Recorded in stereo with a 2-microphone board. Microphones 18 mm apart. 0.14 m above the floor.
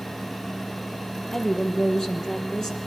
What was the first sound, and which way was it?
A woman speaking, 25° left (ahead or behind).